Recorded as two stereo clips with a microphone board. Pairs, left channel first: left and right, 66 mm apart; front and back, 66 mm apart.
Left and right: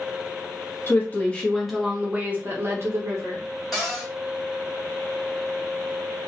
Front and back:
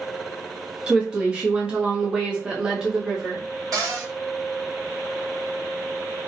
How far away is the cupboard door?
About 1.8 m.